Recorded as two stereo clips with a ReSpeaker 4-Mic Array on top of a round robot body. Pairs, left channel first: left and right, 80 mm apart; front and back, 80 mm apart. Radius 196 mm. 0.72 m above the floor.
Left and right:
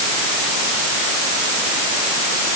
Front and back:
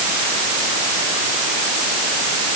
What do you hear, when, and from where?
Only background noise.